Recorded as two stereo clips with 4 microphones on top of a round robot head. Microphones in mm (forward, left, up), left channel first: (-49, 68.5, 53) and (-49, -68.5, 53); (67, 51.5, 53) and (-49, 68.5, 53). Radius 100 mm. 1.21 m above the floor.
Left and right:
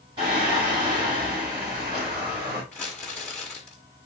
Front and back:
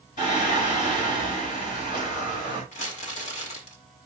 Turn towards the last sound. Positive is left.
turn(degrees=5)